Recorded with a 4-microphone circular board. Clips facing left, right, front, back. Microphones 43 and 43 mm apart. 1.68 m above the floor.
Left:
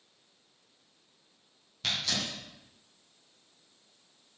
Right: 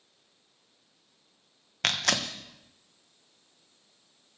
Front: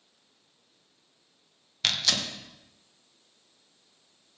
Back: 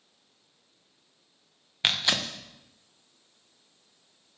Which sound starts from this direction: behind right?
Tearing paper, at 1.8 s.